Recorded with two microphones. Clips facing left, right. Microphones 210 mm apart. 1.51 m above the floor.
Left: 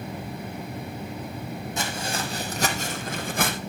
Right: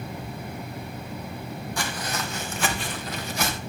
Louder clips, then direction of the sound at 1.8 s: Left 1 dB; 20° left (ahead or behind).